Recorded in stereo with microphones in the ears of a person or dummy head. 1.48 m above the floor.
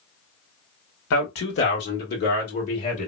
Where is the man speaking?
70° left (ahead or behind), 1.3 m; by 3.1 s 40° left (ahead or behind), 1.8 m.